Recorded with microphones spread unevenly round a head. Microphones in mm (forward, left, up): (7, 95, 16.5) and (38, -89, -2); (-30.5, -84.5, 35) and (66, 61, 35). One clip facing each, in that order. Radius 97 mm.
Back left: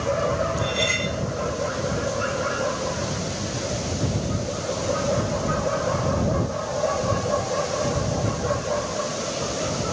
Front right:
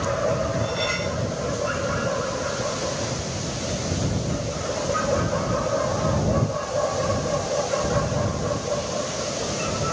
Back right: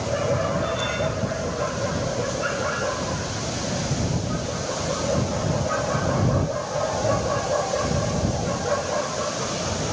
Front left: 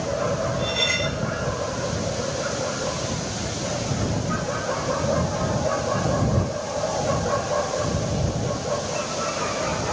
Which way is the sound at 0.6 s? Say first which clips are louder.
Even, back right 1 dB; 55° left.